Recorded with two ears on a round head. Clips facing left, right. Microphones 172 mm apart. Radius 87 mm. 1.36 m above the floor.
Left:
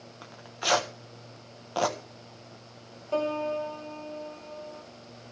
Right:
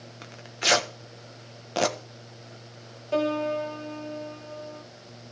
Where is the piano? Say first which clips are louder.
Right 3 dB; 15° right (ahead or behind), 1.5 m.